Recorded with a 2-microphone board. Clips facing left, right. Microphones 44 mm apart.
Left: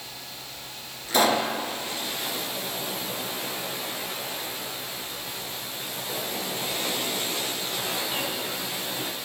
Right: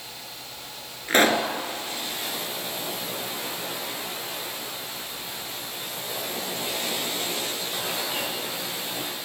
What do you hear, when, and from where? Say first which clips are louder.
1.1 s a pop: right 2 dB; 45° right (ahead or behind), 1.6 m